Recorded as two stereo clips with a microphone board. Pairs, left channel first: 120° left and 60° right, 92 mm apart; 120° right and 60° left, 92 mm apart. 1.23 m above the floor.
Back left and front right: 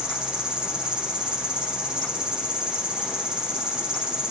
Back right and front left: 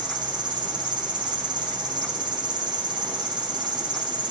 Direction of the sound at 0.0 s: 20° left.